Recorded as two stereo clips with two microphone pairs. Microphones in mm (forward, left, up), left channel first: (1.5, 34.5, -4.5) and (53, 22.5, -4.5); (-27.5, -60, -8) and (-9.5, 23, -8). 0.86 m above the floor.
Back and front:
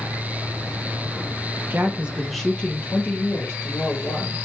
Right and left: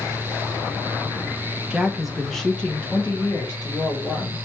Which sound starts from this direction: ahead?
A woman speaking, at 1.7 s.